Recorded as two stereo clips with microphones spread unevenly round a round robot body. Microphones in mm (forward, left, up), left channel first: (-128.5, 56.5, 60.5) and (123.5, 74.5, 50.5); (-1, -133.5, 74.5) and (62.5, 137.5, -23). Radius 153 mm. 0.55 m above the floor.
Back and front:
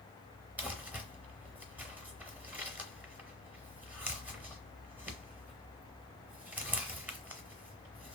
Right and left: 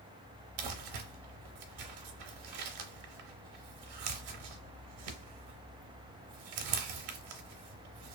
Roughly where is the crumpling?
Left.